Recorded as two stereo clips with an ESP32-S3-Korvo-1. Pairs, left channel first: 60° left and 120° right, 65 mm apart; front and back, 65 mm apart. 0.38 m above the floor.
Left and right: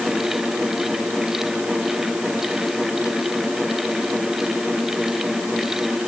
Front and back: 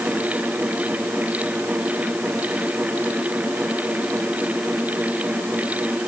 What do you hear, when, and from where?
Only background noise.